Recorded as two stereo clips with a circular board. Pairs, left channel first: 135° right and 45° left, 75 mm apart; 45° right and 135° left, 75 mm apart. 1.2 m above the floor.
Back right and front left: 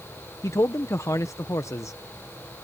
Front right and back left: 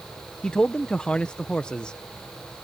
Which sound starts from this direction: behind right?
A man speaking, at 0.4 s.